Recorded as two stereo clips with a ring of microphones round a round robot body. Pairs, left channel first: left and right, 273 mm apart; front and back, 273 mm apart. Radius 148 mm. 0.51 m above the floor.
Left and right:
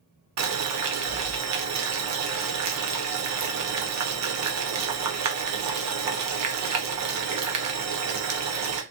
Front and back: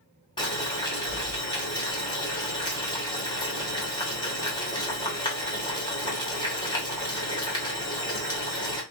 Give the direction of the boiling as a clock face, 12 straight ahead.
2 o'clock.